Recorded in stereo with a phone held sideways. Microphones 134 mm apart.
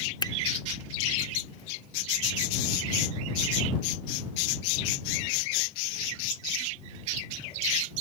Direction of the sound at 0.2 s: 35° left (ahead or behind).